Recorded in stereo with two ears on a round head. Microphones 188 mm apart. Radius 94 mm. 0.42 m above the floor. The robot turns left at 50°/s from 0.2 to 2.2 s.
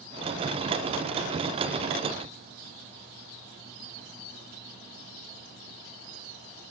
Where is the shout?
I don't hear a shout.